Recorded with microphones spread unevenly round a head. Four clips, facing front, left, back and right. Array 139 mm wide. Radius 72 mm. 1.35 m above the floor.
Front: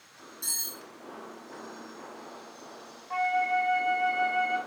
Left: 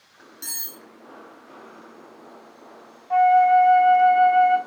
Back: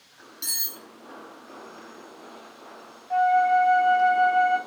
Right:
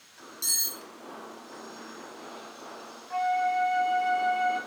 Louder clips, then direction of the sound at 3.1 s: Left 11 dB, back 8 dB; 105° left.